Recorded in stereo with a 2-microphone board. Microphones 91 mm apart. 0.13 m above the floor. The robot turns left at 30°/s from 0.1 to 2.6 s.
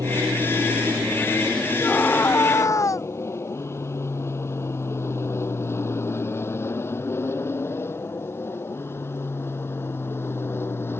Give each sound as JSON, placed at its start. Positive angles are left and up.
{"t": 0.0, "sound": "an aircraft", "side_deg": -40}
{"t": 1.8, "sound": "a scream", "side_deg": 10}